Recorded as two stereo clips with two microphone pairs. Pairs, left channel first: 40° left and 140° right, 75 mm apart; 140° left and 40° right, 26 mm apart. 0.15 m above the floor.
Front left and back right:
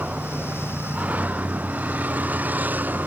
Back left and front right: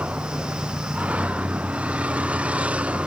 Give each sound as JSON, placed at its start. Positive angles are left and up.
{"t": 0.0, "sound": "a vehicle", "azimuth_deg": -70}